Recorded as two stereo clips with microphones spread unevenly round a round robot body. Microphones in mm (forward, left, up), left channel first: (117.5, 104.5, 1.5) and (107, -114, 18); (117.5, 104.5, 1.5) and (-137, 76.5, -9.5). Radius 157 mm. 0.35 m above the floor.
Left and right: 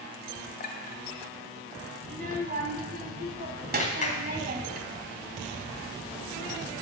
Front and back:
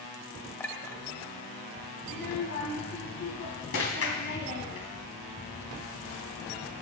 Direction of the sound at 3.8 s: 35° left.